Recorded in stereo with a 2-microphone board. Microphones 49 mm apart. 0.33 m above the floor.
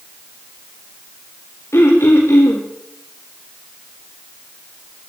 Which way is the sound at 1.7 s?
80° left.